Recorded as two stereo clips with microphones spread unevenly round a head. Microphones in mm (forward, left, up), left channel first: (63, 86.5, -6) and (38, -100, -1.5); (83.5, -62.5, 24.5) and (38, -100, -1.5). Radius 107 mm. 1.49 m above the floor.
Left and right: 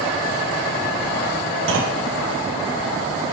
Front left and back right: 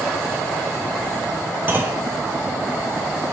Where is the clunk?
85° right, 1.1 m.